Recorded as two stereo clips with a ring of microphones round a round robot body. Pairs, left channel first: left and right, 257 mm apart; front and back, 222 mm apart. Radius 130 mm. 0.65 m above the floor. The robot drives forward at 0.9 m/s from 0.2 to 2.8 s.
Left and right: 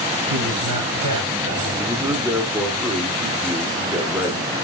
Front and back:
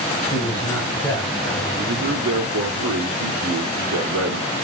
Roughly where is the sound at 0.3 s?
Right.